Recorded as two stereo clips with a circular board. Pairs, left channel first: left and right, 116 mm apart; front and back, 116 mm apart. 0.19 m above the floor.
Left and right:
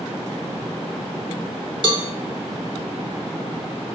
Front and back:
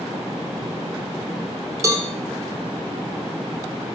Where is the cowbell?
125° right, 0.5 m.